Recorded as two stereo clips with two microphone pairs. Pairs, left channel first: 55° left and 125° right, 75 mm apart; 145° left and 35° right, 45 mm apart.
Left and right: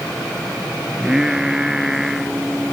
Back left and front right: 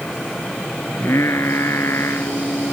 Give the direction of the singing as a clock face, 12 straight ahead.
7 o'clock.